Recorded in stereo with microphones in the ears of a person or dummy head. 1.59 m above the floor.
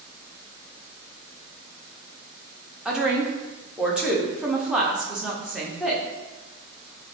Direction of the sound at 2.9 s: Centre (ahead or behind).